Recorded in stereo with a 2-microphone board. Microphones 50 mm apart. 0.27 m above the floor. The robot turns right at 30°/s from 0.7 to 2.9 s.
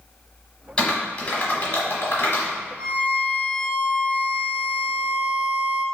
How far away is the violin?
About 1.0 m.